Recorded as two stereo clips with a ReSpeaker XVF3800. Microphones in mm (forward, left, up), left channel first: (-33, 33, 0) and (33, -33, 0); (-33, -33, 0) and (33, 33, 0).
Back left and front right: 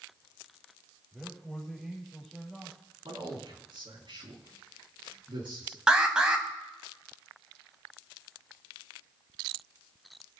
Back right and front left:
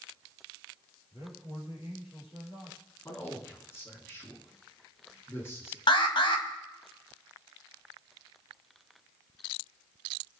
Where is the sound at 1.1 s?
130° right, 7.5 m.